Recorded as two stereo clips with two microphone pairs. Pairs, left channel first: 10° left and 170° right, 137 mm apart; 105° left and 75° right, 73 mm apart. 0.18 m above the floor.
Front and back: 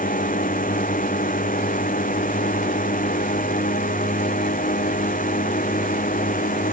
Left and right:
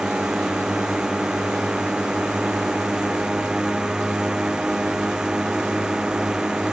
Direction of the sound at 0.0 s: 5° left.